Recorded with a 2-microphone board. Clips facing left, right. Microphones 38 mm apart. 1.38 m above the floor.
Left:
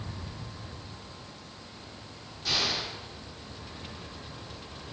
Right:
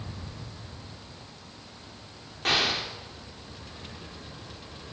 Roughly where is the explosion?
Right.